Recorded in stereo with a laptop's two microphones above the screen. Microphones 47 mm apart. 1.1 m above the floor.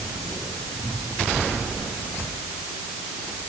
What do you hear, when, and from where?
Only background noise.